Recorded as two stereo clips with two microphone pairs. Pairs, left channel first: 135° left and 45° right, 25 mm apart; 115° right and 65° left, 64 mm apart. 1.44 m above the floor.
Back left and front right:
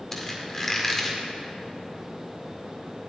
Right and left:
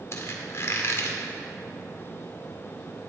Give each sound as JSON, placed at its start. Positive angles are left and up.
{"t": 0.1, "sound": "a squeak", "azimuth_deg": -160, "distance_m": 1.9}